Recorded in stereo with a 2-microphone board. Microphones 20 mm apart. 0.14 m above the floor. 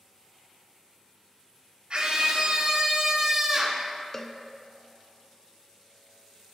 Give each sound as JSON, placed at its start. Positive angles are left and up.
{"t": 1.9, "sound": "a scream", "side_deg": -55, "distance_m": 2.5}
{"t": 4.1, "sound": "a cowbell", "side_deg": 15, "distance_m": 0.6}